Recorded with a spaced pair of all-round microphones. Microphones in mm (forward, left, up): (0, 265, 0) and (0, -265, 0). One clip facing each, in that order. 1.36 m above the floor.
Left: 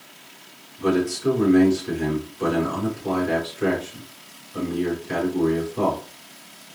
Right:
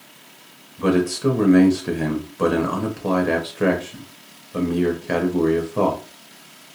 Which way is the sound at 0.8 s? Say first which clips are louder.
Right 3 dB; 85° right.